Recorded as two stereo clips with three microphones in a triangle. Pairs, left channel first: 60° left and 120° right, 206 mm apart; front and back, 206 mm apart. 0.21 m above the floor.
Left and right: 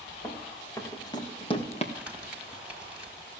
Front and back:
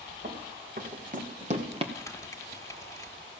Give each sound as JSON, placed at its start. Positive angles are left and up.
{"t": 0.2, "sound": "running footsteps", "azimuth_deg": 140, "distance_m": 3.0}
{"t": 1.9, "sound": "crumpling", "azimuth_deg": -45, "distance_m": 1.6}